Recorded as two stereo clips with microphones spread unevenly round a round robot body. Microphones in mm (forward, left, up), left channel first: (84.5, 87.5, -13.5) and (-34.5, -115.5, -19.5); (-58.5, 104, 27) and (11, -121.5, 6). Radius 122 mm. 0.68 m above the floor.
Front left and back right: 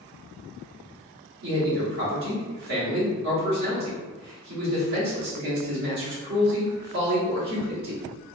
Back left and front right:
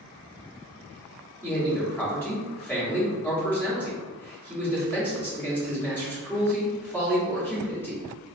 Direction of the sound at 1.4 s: 170° right.